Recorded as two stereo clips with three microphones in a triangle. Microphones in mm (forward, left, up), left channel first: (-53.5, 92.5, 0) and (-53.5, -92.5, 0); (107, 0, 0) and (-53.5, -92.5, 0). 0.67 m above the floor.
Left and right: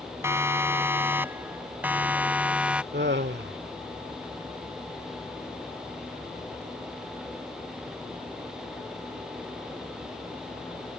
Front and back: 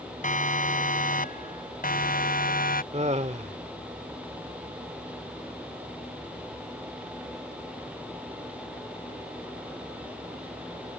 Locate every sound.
0.2 s a siren: 15° right; by 2.8 s 5° right
2.9 s laughter: 100° right